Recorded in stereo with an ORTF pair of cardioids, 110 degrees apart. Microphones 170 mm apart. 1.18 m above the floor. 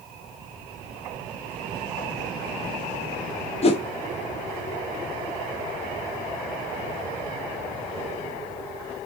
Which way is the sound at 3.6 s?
35° left.